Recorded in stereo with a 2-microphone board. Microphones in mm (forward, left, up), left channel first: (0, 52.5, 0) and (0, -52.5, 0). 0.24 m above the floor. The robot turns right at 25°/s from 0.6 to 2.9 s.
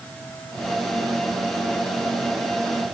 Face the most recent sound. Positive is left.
No sound to turn to.